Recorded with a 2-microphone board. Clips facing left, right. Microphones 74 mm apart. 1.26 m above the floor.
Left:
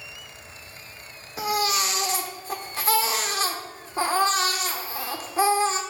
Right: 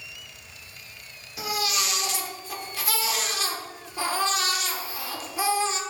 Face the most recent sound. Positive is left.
turn(degrees=40)  # may be behind; listen again after turning